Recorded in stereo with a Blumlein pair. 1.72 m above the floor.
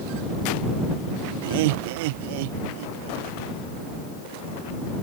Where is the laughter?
55° right; by 3.3 s 50° right.